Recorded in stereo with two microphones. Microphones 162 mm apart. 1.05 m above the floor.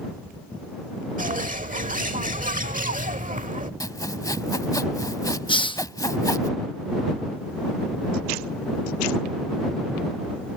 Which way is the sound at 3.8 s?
20° left (ahead or behind).